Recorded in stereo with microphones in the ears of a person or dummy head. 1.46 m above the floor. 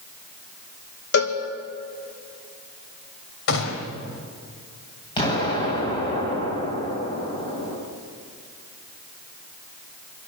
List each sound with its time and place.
1.1 s a cowbell: 55° left (ahead or behind), 2 m
3.5 s a gunshot: 80° left, 3.5 m
5.2 s an explosion: 25° left (ahead or behind), 8.5 m